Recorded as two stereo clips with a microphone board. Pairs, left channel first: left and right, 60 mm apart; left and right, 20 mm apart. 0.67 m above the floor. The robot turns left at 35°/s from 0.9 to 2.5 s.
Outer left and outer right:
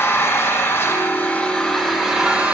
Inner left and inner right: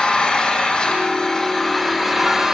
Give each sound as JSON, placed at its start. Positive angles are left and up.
{"t": 0.0, "sound": "an engine running", "azimuth_deg": 35, "distance_m": 9.0}